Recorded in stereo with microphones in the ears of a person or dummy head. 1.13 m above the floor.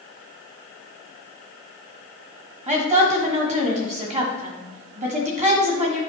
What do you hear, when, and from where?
2.7 s a woman speaking: 40° right (ahead or behind), 1.7 m